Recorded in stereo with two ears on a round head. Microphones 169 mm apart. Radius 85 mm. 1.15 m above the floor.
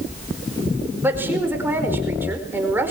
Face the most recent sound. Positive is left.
turn(degrees=-10)  # may be behind; listen again after turning